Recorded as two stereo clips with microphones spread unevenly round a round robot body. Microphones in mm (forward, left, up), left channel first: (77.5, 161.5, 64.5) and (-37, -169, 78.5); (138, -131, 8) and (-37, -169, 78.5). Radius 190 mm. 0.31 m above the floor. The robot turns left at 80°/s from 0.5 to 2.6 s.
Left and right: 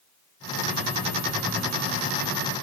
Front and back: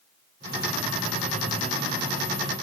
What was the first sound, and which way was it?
Only background noise.